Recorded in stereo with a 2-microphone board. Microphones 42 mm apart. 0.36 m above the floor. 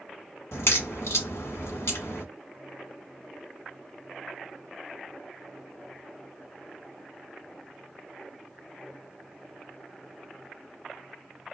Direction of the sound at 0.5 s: 80° left.